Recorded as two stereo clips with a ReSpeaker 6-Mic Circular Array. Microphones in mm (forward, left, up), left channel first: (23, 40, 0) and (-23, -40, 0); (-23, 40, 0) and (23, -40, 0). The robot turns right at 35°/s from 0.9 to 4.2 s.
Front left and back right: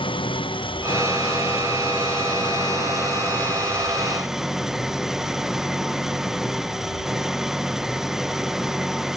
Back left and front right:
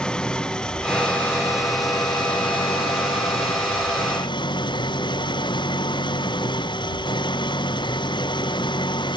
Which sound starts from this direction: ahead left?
An engine running, at 0.0 s.